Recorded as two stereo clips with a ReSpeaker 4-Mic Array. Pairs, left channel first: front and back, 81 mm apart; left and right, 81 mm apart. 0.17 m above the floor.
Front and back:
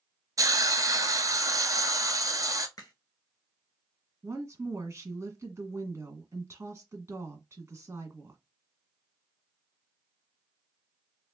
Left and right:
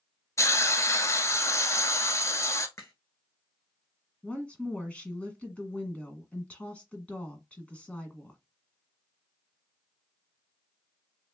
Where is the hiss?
140° left, 0.8 m.